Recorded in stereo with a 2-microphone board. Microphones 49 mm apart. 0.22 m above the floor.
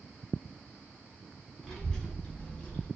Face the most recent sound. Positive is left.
turn(degrees=25)  # may be behind; listen again after turning